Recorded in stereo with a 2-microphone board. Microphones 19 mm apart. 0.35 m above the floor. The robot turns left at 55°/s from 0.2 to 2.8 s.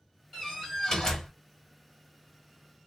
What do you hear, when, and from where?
0.3 s a door slam: 165° left, 2.5 m; by 1.3 s 115° left, 2.5 m